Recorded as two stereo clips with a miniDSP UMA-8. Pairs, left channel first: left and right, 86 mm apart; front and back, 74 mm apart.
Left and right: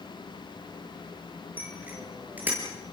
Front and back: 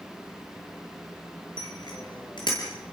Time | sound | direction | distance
1.6 | a bicycle bell | 20° right | 8 m